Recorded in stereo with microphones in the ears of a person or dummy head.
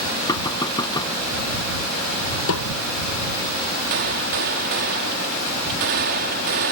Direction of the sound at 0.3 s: 25° left (ahead or behind).